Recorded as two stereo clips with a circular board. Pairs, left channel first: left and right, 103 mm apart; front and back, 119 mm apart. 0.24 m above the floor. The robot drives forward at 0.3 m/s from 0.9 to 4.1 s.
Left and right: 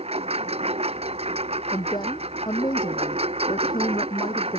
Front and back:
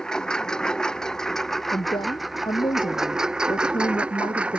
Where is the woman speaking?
45° left; by 4.6 s 50° left.